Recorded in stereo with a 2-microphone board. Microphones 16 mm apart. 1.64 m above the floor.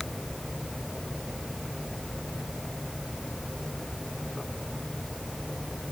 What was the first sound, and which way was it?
Only background noise.